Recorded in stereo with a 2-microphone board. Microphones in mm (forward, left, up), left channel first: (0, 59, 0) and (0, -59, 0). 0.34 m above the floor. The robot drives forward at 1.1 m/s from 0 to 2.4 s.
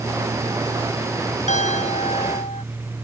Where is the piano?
85° left.